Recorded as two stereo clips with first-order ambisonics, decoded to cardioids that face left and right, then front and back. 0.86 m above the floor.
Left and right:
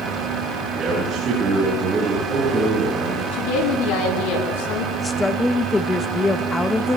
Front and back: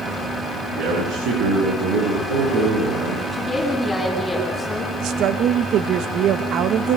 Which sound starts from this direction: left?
A woman speaking, at 3.3 s.